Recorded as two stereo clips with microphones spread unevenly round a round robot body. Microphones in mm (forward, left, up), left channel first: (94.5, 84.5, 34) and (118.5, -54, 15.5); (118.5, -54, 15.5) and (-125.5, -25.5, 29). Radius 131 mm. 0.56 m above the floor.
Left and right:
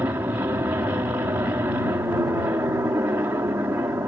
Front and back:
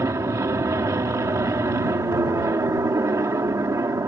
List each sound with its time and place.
0.0 s an aircraft: 125° right